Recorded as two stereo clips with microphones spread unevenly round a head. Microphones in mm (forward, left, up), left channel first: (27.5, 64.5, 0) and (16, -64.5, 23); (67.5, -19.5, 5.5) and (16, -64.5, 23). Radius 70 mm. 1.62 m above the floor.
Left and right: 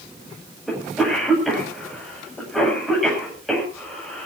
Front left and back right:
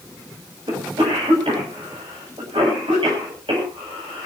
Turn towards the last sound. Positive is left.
turn(degrees=175)